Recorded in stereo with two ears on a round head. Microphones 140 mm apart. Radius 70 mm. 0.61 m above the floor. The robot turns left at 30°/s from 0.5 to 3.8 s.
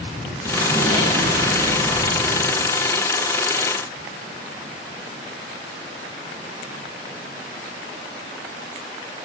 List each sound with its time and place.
0.4 s an explosion: 165° right, 4 m; by 2.8 s 130° left, 4 m